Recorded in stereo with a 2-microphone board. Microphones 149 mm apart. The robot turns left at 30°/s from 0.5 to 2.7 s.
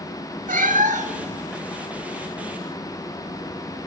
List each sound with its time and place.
0.5 s a cat meowing: 65° right (ahead or behind), 1.0 m; by 1.4 s 55° right (ahead or behind), 1.0 m